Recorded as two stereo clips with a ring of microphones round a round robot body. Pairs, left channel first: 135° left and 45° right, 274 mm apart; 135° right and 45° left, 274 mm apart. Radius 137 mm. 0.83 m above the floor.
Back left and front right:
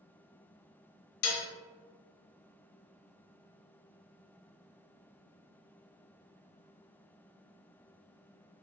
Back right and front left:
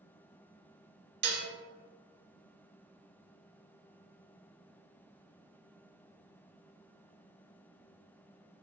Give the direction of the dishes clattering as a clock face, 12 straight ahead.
9 o'clock.